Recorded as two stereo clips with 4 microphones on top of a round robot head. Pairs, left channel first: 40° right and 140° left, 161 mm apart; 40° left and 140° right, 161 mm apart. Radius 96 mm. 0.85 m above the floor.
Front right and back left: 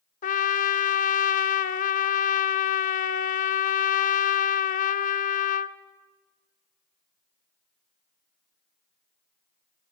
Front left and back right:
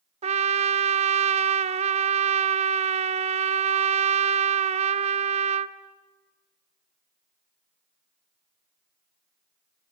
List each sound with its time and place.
0.2 s a trumpet: 85° right, 0.6 m